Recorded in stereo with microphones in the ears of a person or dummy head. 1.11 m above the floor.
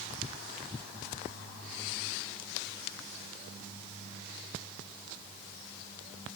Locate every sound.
Only background noise.